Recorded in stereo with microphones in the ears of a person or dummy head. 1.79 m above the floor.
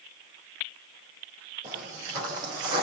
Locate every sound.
1.6 s footsteps: 25° right (ahead or behind), 4 m; by 2.8 s 35° right (ahead or behind), 4.5 m